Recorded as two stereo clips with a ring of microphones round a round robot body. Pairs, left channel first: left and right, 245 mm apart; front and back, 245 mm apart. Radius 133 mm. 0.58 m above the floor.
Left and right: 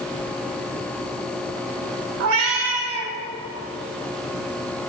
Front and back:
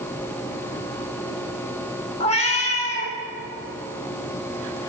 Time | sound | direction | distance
2.2 | a cat meowing | 65° right | 0.9 m